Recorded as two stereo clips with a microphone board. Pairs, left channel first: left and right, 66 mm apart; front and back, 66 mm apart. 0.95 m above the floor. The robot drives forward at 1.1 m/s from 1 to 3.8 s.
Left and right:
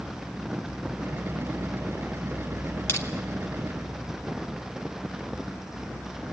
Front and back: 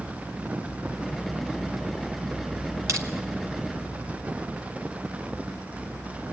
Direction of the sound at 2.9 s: 140° left.